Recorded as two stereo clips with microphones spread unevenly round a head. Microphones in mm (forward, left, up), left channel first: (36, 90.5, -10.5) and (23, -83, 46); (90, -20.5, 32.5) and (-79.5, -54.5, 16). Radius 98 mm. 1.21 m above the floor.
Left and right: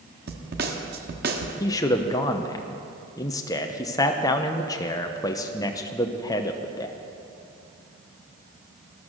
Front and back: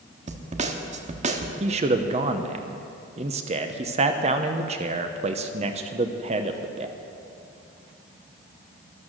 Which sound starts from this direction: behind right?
A snare drum, at 0.3 s.